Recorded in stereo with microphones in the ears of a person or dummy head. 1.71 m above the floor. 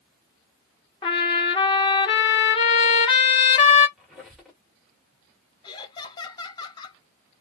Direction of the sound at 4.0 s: Centre (ahead or behind).